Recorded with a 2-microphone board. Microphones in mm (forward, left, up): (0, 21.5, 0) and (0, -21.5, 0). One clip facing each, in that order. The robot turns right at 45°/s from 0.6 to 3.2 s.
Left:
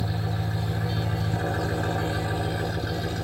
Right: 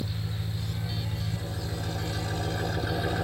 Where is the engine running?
80° left; by 3.2 s 165° right.